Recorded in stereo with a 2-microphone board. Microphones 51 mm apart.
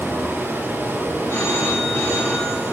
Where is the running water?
35° right (ahead or behind), 9 m.